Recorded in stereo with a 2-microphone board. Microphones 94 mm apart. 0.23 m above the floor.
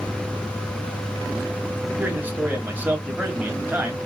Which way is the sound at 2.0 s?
20° right (ahead or behind).